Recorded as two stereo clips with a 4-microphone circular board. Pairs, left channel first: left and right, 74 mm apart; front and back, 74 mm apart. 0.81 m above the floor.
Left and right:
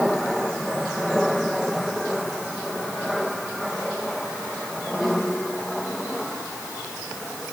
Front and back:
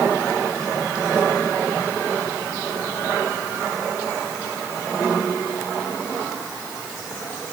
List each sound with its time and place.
Only background noise.